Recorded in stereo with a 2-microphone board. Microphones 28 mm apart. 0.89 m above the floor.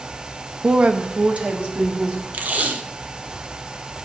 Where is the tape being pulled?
60° right (ahead or behind), 1.0 m.